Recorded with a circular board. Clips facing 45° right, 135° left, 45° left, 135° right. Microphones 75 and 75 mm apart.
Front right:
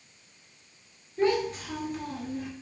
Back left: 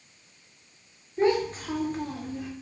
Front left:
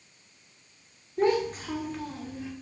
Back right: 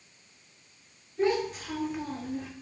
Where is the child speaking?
75° left, 1.3 m; by 2.5 s 145° right, 1.0 m.